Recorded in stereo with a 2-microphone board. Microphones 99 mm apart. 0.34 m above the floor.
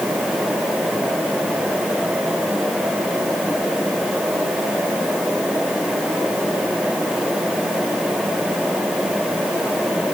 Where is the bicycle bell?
No bicycle bell in this recording.